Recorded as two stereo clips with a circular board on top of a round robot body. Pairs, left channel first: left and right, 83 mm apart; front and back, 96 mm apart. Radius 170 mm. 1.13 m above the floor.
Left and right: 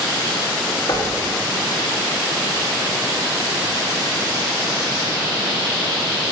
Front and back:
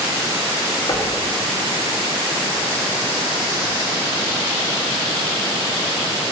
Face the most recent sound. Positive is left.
turn(degrees=50)